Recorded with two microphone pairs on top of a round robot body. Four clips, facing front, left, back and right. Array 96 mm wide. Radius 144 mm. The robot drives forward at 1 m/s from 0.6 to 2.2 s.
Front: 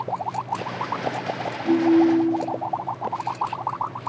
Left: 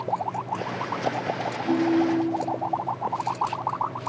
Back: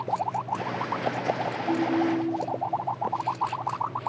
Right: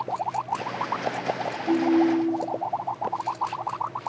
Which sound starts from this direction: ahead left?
A ringtone, at 1.6 s.